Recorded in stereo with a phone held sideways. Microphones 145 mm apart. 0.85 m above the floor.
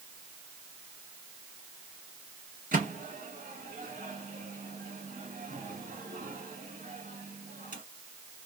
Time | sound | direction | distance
2.7 | a microwave | 65° right (ahead or behind) | 1.5 m